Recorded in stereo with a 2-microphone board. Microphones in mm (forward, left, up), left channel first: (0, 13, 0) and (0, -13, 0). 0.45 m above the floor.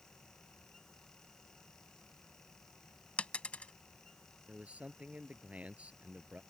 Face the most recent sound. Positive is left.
turn(degrees=-65)  # may be behind; listen again after turning